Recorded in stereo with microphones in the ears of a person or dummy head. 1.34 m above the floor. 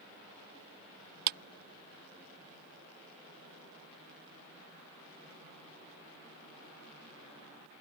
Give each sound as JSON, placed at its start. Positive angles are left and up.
{"t": 1.3, "sound": "a clap", "side_deg": -55}